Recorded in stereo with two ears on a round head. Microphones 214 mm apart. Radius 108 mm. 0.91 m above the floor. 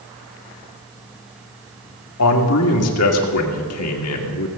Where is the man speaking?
65° left (ahead or behind), 2 m.